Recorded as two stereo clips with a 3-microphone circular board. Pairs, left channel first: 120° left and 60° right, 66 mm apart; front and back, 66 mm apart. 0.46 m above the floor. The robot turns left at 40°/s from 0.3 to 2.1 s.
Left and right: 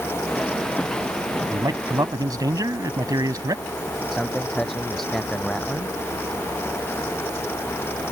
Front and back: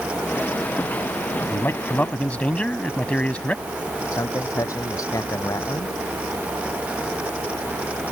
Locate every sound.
1.5 s a man speaking: 45° right; by 3.6 s 70° right
4.1 s a man speaking: 35° left